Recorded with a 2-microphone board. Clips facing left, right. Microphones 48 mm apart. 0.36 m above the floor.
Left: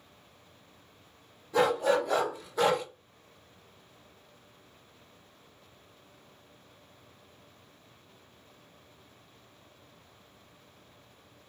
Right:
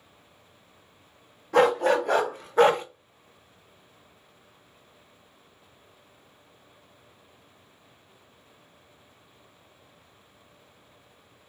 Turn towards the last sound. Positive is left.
turn(degrees=-30)  # may be behind; listen again after turning